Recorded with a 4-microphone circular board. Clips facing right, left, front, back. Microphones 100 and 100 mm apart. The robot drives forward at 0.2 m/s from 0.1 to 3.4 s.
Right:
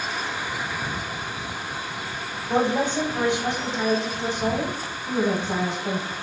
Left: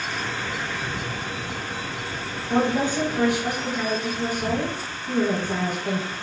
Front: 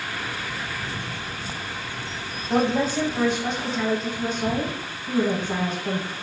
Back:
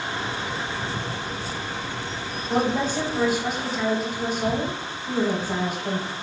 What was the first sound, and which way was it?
A woman speaking, 80° right.